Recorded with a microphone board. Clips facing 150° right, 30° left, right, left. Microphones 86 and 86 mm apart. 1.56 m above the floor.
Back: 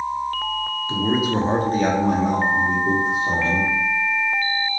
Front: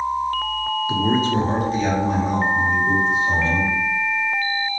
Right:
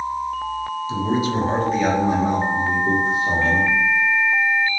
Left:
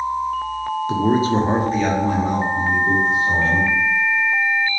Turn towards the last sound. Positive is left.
turn(degrees=-135)